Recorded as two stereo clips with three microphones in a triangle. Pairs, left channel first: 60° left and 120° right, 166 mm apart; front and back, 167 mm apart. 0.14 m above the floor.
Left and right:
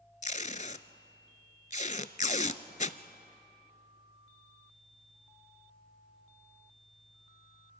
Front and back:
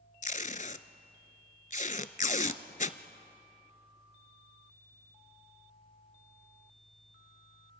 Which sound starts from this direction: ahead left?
Tape being pulled, at 0.2 s.